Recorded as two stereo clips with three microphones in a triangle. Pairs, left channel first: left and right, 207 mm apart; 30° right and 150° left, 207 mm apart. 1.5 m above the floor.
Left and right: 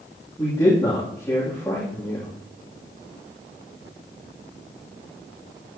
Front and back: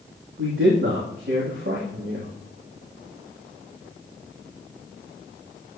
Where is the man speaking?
165° left, 3 m.